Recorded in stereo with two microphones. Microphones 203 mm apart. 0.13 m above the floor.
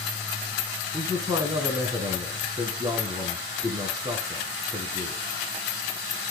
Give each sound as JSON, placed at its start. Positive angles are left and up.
{"t": 0.9, "sound": "a man speaking", "side_deg": -20, "distance_m": 1.5}